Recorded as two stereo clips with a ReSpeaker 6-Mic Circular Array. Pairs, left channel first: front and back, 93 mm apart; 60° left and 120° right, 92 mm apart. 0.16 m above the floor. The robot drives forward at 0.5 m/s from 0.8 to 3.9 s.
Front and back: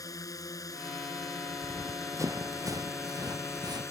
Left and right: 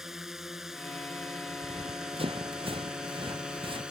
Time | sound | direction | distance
0.0 | a drone | 35° right | ?
1.6 | running footsteps | 120° right | ?